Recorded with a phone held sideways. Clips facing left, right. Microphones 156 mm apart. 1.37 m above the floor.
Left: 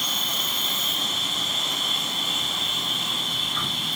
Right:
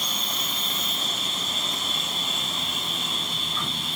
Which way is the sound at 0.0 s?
80° left.